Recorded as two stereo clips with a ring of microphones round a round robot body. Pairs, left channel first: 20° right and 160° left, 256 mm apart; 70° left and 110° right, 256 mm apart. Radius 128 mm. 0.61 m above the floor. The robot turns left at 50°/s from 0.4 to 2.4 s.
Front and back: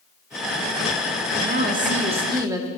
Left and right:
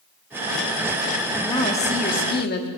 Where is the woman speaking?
135° left, 1.4 m; by 2.7 s 85° left, 1.4 m.